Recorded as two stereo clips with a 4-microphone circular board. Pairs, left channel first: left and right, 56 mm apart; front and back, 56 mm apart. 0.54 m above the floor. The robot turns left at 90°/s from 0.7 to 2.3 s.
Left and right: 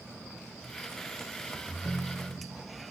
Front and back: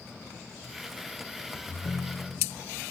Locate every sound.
1.7 s a ringtone: 40° left; by 2.7 s 15° right